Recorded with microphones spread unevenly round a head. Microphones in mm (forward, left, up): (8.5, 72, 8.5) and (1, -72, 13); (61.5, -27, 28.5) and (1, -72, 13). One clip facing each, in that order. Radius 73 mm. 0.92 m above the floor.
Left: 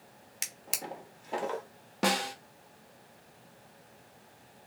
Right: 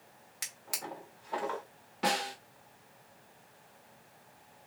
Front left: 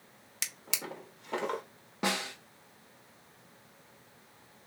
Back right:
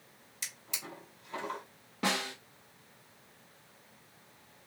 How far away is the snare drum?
About 1.1 m.